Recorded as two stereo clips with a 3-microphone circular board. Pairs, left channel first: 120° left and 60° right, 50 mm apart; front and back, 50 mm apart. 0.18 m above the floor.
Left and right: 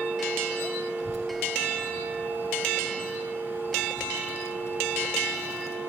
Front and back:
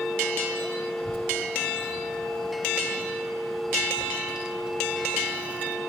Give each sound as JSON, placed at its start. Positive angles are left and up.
{"t": 1.0, "sound": "a child speaking", "azimuth_deg": 30, "distance_m": 1.6}